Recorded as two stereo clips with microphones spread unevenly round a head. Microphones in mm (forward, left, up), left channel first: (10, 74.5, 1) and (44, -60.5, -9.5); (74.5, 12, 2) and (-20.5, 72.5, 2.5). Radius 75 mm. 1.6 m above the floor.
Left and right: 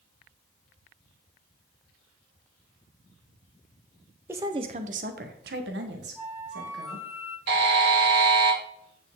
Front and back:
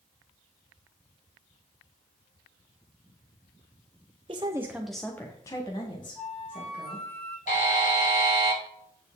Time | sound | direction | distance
4.3 | a woman speaking | 155° right | 0.7 m
6.2 | a flute | straight ahead | 3.5 m
7.5 | a buzzer | 80° right | 1.6 m